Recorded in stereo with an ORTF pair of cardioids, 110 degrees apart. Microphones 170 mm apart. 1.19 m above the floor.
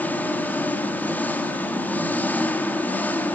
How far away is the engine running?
About 2.5 m.